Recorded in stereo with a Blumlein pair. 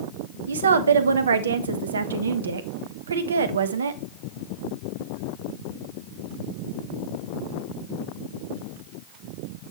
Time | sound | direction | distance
0.5 | a woman speaking | 70° right | 0.9 m